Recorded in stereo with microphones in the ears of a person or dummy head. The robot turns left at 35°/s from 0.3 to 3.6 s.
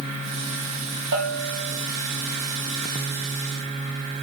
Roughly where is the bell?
Right.